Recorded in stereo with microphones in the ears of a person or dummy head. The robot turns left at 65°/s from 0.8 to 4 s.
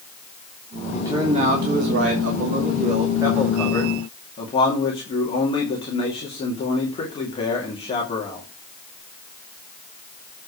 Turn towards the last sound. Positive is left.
turn(degrees=145)